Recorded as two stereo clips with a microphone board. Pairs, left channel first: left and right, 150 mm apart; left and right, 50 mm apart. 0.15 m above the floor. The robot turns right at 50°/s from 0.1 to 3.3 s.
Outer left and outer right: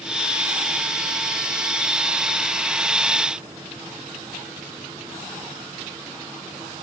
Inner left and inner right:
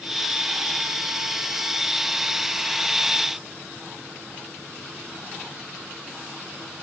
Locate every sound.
Only background noise.